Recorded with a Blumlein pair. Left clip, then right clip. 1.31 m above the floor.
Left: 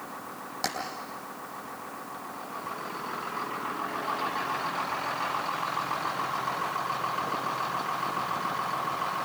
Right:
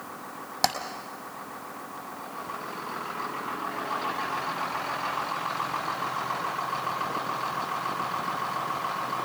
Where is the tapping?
20° right, 3.5 m.